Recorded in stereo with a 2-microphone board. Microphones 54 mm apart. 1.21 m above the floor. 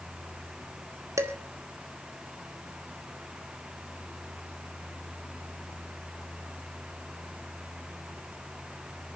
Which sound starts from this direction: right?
Dishes clattering, at 1.2 s.